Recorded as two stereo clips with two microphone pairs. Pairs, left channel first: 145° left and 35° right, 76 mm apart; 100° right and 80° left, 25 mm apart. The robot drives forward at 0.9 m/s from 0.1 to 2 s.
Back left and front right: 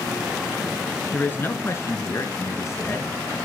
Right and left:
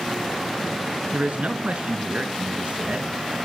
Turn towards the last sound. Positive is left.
turn(degrees=100)